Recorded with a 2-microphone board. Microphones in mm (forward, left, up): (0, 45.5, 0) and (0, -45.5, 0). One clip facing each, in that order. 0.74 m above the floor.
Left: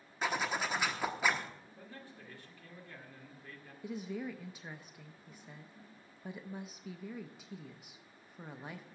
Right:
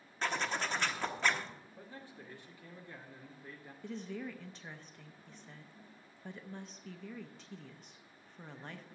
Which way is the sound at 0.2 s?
5° left (ahead or behind).